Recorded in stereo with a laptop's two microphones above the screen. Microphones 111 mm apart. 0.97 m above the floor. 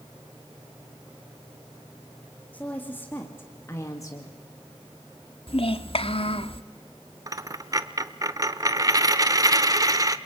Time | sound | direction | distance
2.5 | a woman speaking | 15° left (ahead or behind) | 2 m
5.5 | a child speaking | 55° left (ahead or behind) | 1.2 m
7.3 | a dropped coin | 30° right (ahead or behind) | 0.7 m